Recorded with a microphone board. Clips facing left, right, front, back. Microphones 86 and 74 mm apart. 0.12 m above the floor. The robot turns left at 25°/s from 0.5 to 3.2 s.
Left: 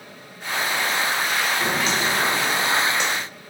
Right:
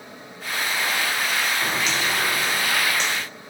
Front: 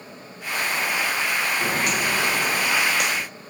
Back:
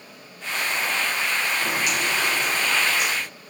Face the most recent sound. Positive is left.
turn(degrees=10)